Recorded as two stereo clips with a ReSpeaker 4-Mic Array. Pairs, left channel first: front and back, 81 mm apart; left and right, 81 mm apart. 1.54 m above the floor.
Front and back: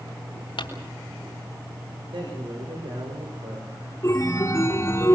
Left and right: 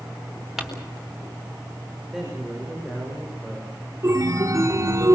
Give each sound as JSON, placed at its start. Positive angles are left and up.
{"t": 0.6, "sound": "crumpling", "azimuth_deg": -5, "distance_m": 4.0}
{"t": 2.1, "sound": "a man speaking", "azimuth_deg": 180, "distance_m": 6.5}
{"t": 4.0, "sound": "a chime", "azimuth_deg": -45, "distance_m": 1.9}